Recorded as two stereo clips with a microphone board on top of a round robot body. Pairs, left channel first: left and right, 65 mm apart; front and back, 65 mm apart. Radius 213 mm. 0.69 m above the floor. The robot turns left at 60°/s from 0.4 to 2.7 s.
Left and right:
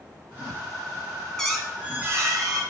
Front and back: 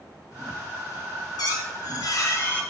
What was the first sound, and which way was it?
A squeak, 10° left.